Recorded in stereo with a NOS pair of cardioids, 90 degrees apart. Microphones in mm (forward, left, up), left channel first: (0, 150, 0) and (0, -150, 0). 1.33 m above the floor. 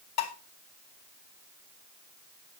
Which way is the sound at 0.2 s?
60° left.